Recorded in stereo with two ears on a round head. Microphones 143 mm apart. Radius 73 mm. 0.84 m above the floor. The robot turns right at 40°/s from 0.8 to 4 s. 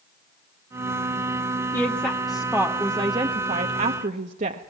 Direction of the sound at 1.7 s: 15° left (ahead or behind).